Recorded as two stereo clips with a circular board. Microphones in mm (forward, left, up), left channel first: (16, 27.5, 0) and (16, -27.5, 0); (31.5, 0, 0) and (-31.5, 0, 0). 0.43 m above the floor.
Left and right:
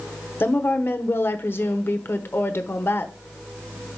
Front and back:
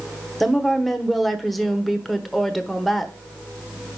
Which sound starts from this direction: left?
A woman speaking, at 0.4 s.